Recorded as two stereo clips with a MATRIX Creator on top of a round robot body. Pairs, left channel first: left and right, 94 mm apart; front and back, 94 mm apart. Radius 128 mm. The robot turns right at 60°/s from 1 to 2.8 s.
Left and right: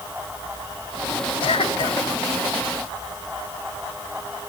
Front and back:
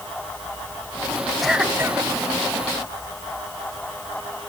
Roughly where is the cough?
Left.